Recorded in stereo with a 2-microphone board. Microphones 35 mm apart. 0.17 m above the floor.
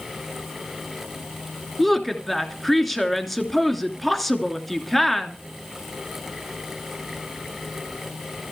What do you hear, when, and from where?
1.8 s a woman speaking: 5° left (ahead or behind), 2.5 m